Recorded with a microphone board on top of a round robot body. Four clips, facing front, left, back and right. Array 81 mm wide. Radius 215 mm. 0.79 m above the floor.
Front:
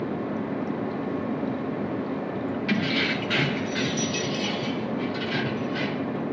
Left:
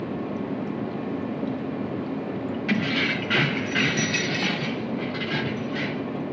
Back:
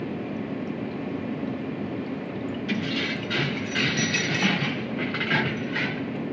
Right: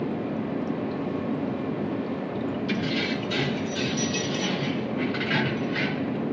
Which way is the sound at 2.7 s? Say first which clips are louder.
Left 5 dB, front 3 dB; 65° left.